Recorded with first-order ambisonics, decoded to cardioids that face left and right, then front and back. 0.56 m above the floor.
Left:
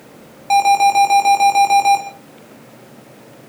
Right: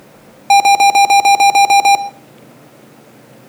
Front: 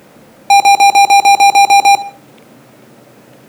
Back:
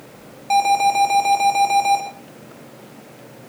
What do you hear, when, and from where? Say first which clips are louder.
0.5 s an alarm: right 4 dB, front 10 dB; 35° right, 2 m